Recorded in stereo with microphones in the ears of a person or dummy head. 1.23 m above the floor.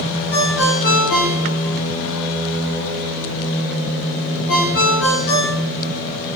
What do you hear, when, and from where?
0.3 s a ringtone: 60° left (ahead or behind), 1.4 m